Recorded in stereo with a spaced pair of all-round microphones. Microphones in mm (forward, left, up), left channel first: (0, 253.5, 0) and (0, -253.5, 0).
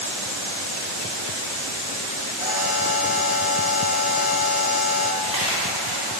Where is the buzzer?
25° right (ahead or behind), 2.5 m.